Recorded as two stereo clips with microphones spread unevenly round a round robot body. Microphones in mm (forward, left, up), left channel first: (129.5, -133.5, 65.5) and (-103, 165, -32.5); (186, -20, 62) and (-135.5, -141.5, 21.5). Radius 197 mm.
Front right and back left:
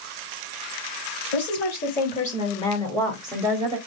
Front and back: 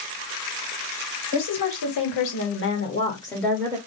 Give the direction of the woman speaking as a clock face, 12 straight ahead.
11 o'clock.